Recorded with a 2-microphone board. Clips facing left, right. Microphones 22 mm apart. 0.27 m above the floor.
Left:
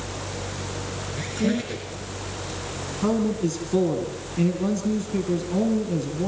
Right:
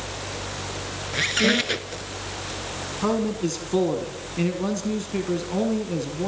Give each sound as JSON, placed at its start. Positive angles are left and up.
{"t": 1.1, "sound": "a squeak", "side_deg": -60, "distance_m": 1.6}
{"t": 3.0, "sound": "a man speaking", "side_deg": -25, "distance_m": 2.5}